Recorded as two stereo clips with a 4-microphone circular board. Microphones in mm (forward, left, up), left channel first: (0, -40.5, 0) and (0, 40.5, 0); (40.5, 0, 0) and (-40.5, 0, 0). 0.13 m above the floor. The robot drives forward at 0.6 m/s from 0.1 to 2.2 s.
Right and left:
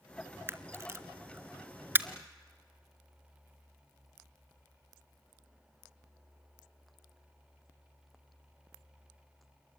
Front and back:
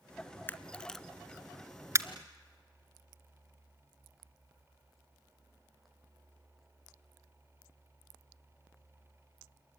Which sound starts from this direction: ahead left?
A camera shutter, at 0.5 s.